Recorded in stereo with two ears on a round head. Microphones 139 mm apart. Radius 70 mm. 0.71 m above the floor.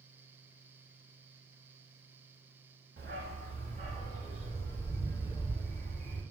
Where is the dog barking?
75° right (ahead or behind), 1.1 m; by 6.2 s centre (ahead or behind), 1.6 m.